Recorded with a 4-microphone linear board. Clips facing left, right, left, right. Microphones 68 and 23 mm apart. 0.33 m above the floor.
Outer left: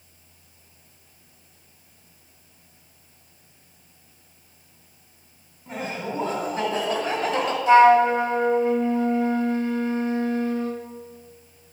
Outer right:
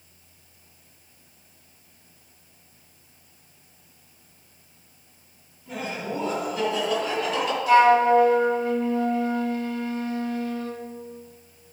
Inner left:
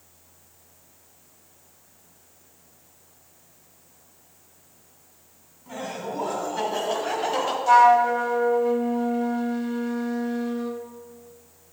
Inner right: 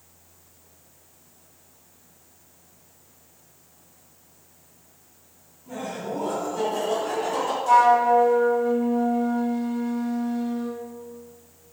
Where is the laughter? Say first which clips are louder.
Outer left 1 dB, inner right 1 dB; 35° left (ahead or behind), 2 m; by 7.6 s 40° left (ahead or behind), 1.3 m.